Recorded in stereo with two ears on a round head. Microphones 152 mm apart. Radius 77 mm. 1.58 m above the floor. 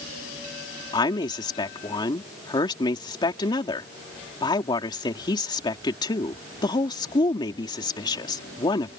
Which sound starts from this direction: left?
A woman speaking, at 0.9 s.